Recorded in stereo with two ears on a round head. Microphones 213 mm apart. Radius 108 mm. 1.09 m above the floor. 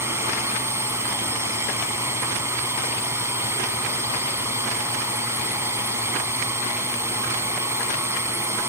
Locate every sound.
0.0 s a drone: 10° right (ahead or behind)